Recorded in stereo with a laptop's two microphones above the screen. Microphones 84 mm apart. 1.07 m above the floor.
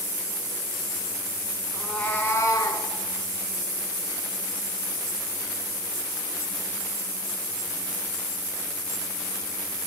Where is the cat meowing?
Centre (ahead or behind), 1.4 m; by 2.9 s 55° left (ahead or behind), 1.6 m.